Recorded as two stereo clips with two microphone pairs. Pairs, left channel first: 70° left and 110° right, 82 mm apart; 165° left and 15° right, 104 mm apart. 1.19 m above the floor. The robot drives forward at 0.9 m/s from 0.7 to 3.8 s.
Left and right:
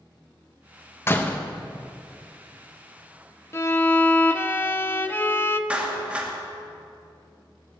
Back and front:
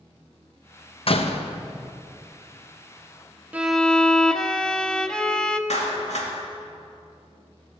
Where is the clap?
175° left, 2 m.